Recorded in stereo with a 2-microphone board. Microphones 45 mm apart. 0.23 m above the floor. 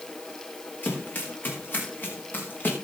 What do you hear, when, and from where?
0.8 s running footsteps: 45° left (ahead or behind), 5.5 m